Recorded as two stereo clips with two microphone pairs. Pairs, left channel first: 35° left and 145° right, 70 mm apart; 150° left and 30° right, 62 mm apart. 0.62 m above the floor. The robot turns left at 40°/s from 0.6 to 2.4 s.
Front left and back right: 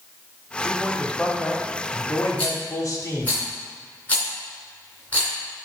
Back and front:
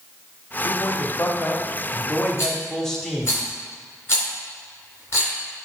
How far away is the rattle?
About 2.5 m.